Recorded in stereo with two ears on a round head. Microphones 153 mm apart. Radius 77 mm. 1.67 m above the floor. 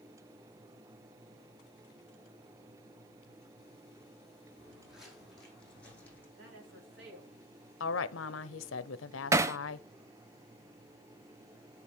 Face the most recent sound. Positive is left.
turn(degrees=-15)  # may be behind; listen again after turning